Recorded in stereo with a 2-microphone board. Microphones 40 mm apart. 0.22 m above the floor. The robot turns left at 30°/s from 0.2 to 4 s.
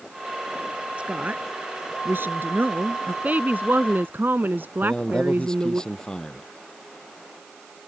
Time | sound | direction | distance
1.0 | a woman speaking | 35° right | ?
3.2 | a woman speaking | 45° right (ahead or behind) | ?
4.8 | a man speaking | 20° left (ahead or behind) | ?